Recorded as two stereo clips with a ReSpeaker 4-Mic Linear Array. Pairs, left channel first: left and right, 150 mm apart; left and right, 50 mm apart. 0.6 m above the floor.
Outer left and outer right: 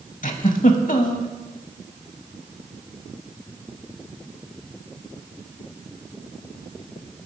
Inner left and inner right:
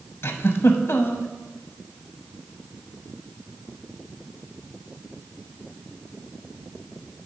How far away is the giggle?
About 0.7 m.